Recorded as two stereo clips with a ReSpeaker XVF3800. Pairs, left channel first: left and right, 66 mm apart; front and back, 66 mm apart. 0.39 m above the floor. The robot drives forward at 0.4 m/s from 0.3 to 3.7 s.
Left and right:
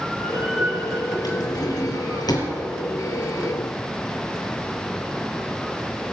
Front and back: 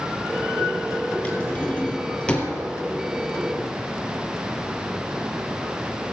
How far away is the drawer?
About 3 m.